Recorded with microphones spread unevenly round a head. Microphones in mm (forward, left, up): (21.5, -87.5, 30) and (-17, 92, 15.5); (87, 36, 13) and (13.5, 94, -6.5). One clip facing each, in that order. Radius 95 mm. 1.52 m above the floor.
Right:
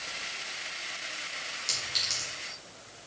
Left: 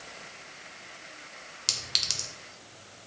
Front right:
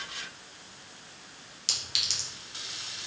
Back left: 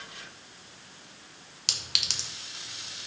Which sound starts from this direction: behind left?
A clink, at 1.7 s.